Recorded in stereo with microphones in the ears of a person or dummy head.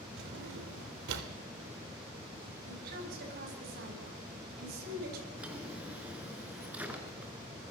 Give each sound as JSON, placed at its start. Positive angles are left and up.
{"t": 0.2, "sound": "a drawer", "side_deg": -65, "distance_m": 3.0}
{"t": 2.7, "sound": "a woman speaking", "side_deg": -50, "distance_m": 9.5}
{"t": 5.4, "sound": "a drawer", "side_deg": -10, "distance_m": 3.5}